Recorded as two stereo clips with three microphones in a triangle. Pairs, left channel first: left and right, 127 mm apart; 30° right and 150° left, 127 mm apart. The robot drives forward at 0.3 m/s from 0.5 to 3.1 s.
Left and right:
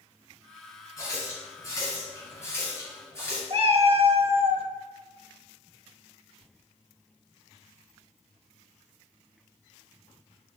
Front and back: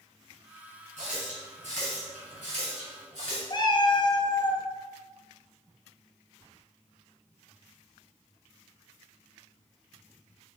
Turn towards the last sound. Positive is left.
turn(degrees=-75)